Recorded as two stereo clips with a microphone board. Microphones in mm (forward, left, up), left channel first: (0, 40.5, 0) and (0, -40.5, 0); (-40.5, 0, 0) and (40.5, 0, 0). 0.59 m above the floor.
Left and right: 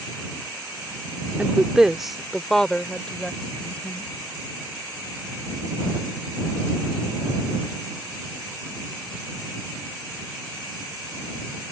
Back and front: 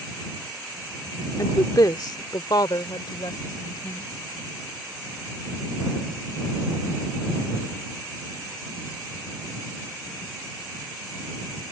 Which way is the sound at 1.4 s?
160° right.